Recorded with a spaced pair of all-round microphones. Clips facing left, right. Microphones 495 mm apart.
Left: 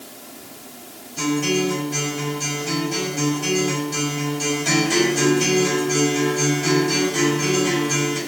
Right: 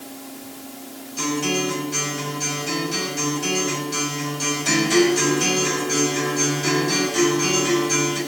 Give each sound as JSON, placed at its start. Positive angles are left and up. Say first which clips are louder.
{"t": 1.2, "sound": "a guitar", "louder": "left 3 dB", "side_deg": 70, "distance_m": 7.5}